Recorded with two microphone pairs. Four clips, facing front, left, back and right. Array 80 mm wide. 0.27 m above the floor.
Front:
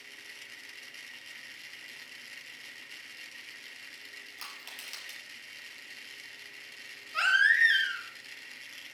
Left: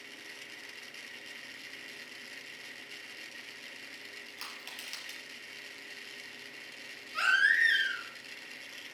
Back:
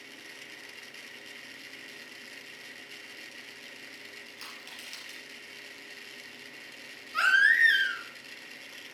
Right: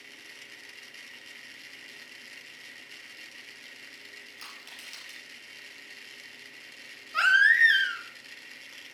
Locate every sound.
4.4 s crushing: 65° left, 4.5 m
7.1 s a baby crying: 105° right, 2.5 m